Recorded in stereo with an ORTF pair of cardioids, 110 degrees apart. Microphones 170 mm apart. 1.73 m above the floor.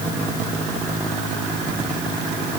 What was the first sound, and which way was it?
Only background noise.